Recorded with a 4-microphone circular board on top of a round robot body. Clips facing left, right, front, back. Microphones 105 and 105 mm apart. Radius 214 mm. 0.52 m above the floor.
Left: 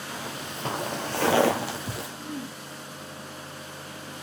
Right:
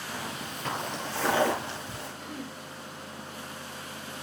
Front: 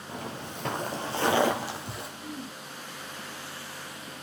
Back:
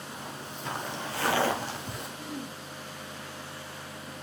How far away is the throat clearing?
About 3.5 m.